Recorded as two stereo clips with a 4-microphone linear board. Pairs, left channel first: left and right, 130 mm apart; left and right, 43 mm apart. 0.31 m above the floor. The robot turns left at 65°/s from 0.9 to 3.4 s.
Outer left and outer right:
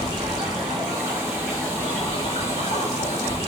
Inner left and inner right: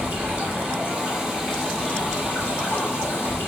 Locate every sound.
0.0 s running water: 140° right, 2.5 m; by 3.5 s 60° left, 2.5 m